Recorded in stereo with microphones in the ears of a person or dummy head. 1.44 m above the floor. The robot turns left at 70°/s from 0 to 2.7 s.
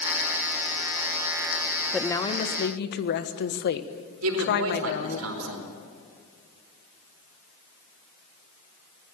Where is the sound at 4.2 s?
85° right, 4 m.